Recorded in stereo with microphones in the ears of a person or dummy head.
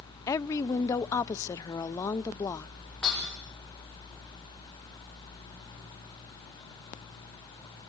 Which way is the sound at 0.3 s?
25° left (ahead or behind).